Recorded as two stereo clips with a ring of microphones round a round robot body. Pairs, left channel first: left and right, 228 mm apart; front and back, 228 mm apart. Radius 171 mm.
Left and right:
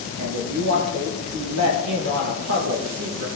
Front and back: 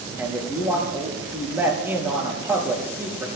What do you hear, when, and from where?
0.2 s a man speaking: 100° right, 6 m